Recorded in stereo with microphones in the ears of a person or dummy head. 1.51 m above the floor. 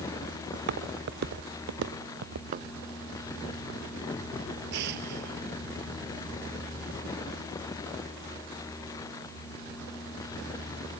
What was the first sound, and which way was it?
Footsteps, 65° right (ahead or behind).